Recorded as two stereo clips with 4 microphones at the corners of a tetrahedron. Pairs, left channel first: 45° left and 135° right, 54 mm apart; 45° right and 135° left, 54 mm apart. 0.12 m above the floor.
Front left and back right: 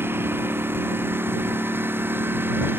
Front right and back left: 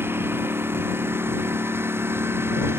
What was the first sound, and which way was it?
A lawn mower, straight behind.